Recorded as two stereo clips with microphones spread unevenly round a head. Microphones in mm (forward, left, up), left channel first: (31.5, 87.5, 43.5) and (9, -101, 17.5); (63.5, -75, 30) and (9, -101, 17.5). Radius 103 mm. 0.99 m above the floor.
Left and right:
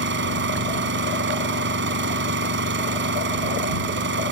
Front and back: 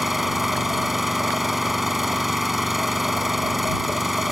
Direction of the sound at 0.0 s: 65° right.